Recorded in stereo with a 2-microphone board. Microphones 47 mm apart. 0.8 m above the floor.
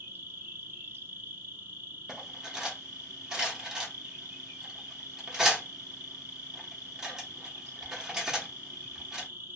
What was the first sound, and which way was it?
An insect, 50° right (ahead or behind).